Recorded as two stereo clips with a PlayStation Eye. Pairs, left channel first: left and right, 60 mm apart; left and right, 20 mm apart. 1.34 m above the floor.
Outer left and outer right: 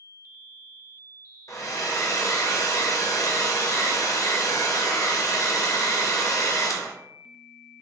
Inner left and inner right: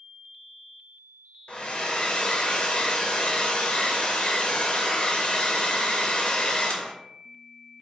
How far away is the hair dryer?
About 0.6 m.